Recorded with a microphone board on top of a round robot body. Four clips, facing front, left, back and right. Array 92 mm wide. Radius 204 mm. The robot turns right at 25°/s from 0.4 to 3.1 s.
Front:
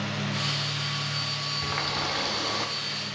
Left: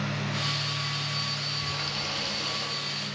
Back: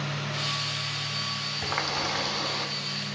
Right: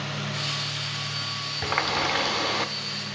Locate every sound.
1.6 s a running tap: 110° right, 1.0 m; by 3.2 s 70° right, 1.0 m